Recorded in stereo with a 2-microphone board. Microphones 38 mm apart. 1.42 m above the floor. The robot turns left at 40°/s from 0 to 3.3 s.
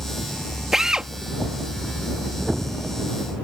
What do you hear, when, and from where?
0.7 s a drill: 10° right (ahead or behind); by 1.1 s 25° right (ahead or behind)